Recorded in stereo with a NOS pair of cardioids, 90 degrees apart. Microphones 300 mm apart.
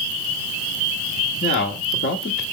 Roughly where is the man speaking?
Ahead left.